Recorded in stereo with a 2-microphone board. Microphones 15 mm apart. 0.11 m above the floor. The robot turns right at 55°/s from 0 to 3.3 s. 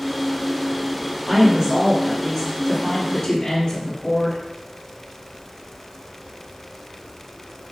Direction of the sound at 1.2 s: 45° right.